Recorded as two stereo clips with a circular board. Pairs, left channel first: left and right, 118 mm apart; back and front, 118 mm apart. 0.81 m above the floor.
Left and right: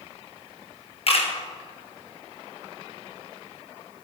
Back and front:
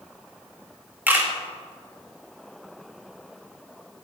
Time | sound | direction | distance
1.1 | a camera shutter | 70° left | 1.0 m